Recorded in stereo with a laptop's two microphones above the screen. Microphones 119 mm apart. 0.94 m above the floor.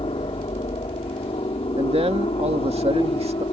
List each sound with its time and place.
0.0 s a helicopter: 55° left (ahead or behind)
1.8 s a man speaking: 60° right (ahead or behind)